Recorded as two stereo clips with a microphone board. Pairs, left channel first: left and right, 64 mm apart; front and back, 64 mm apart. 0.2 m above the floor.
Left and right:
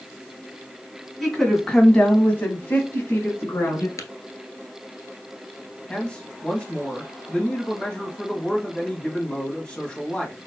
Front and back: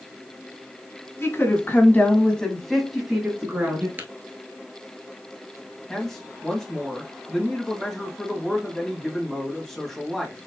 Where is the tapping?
120° left, 1.0 m.